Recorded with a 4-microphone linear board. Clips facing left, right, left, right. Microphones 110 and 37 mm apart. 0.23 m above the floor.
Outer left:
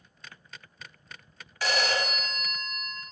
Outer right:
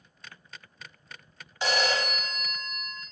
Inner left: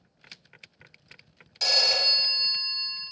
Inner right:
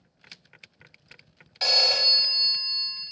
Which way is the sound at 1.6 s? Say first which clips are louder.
Outer right 1 dB, inner right 2 dB; 25° right (ahead or behind).